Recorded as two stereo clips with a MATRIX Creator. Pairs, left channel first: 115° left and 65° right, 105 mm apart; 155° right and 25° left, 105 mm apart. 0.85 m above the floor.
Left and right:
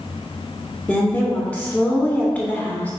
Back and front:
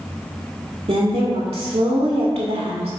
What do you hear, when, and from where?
0.9 s a woman speaking: 30° left, 1.7 m